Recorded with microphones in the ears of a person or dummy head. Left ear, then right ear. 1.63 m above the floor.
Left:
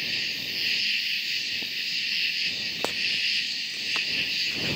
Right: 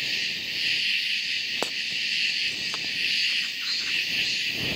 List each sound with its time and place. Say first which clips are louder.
0.0 s an insect: right 1 dB; 15° right (ahead or behind)